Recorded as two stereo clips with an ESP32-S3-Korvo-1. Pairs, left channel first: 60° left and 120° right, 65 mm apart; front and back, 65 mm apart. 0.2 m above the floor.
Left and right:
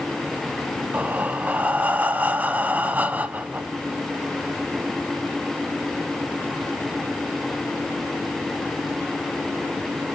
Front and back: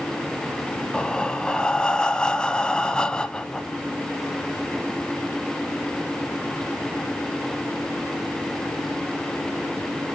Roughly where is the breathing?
Right.